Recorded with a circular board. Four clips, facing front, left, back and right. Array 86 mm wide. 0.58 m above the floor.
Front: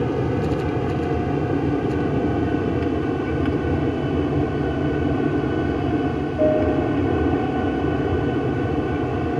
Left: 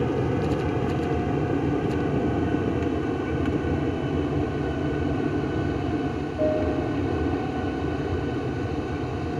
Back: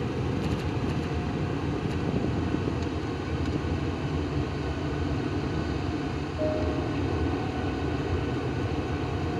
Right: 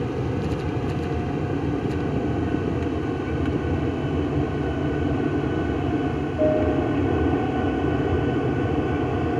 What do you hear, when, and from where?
0.0 s an aircraft: 20° left; by 9.4 s 35° right